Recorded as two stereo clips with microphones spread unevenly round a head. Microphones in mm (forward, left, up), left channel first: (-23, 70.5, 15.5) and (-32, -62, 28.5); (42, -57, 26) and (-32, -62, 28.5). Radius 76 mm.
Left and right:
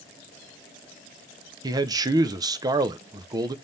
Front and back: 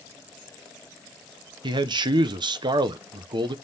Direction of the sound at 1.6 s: 155° right.